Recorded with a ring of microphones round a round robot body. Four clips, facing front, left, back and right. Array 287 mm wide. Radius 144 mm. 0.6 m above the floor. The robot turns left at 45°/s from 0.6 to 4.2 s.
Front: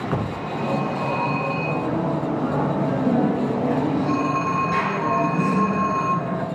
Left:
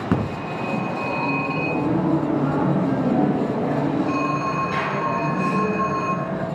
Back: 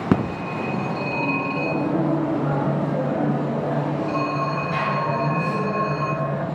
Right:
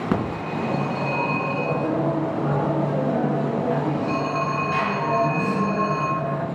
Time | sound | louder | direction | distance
0.1 | a phone ringing | left 1 dB, back 7 dB | 175° left | 3.5 m